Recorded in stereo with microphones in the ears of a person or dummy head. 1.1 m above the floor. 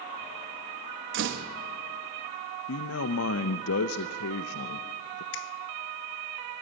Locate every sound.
1.1 s a door slam: 60° right (ahead or behind), 1.3 m
2.7 s a man speaking: 75° left (ahead or behind), 0.7 m
5.3 s a finger snap: 65° left (ahead or behind), 1.1 m